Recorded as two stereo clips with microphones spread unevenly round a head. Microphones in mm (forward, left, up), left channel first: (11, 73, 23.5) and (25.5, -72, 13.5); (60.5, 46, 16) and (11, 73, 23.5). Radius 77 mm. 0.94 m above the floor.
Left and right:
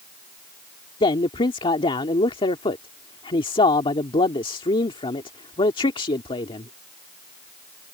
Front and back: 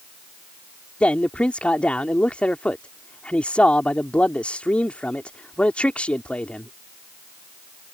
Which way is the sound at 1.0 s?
40° left.